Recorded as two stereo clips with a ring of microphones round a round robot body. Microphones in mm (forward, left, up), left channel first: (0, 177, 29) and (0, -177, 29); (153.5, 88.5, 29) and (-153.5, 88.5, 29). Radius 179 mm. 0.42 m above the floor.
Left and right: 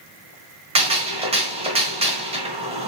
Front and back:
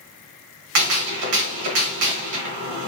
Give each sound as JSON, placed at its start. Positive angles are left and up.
{"t": 0.8, "sound": "a gunshot", "azimuth_deg": -160, "distance_m": 1.5}